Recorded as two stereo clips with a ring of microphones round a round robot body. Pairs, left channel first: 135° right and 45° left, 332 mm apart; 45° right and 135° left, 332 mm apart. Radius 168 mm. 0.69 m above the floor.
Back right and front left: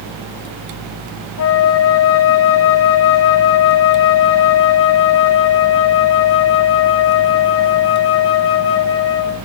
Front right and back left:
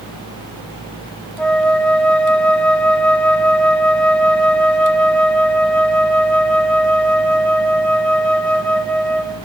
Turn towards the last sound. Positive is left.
turn(degrees=-130)